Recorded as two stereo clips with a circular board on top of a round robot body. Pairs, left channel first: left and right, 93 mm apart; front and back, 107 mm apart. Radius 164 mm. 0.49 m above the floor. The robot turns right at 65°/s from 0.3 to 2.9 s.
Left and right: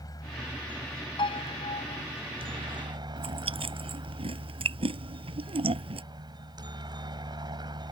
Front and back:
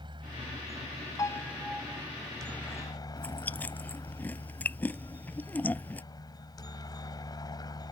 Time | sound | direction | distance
0.0 | a helicopter | 135° left | ?
1.2 | a piano | 60° left | ?
3.2 | chewing | 75° right | ?